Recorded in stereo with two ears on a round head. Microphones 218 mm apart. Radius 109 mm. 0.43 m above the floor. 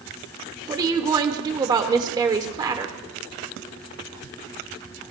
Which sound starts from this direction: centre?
A woman speaking, at 0.7 s.